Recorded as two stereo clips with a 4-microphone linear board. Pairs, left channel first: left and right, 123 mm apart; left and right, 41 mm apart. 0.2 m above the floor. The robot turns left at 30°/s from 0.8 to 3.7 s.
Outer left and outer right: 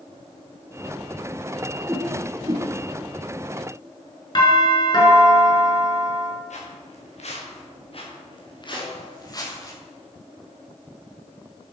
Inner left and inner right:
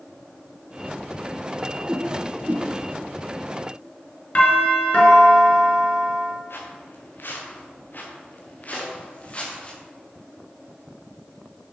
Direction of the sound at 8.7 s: 20° right (ahead or behind).